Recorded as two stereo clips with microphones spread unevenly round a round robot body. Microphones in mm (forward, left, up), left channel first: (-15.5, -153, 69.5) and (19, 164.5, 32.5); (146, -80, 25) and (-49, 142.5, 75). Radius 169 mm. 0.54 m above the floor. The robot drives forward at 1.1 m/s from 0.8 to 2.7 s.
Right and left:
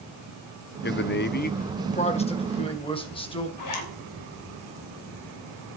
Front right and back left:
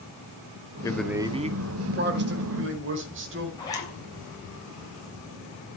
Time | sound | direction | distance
0.8 | a man speaking | 80° right | 0.7 m
3.6 | a zipper | 125° right | 3.5 m